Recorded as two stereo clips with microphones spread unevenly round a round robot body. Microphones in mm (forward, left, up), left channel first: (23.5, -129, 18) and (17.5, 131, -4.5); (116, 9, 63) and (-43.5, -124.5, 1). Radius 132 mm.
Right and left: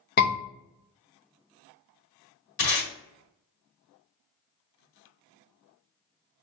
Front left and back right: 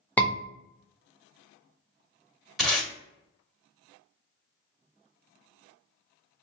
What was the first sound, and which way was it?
A scream, 65° right.